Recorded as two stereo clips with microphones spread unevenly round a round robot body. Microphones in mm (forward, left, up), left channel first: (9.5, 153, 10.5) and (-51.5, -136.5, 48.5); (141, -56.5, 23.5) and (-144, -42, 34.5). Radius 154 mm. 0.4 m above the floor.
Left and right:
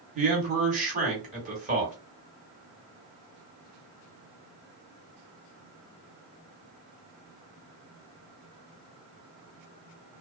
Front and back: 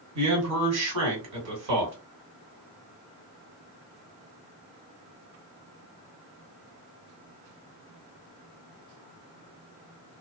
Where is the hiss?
No hiss in this recording.